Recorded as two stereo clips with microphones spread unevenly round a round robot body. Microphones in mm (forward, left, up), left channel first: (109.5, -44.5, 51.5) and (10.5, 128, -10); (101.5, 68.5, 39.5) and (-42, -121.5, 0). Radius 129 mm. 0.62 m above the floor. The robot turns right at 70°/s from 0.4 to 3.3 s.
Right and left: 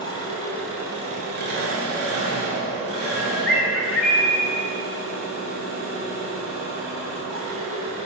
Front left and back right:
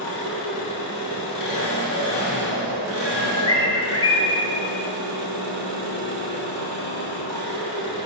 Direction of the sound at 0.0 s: 10° left.